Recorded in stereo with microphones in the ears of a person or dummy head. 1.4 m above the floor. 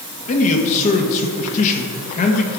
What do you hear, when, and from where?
0.3 s a man speaking: 35° left (ahead or behind), 1.3 m